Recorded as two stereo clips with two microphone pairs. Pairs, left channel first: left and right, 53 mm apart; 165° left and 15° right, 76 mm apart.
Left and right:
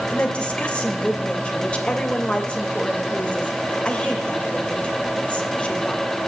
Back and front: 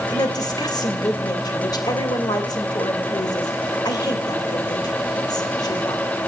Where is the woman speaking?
155° left, 2.5 m.